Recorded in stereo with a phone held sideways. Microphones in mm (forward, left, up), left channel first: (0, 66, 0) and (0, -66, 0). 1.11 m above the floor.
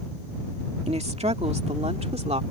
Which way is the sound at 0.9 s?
55° right (ahead or behind).